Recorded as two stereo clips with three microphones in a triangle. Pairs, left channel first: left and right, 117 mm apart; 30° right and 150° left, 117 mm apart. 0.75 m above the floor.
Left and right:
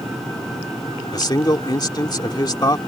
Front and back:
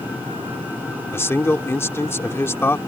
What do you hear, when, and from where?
1.1 s a man speaking: 35° left